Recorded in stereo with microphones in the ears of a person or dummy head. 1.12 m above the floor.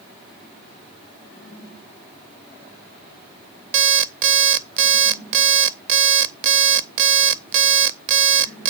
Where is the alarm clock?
40° right (ahead or behind), 0.5 m.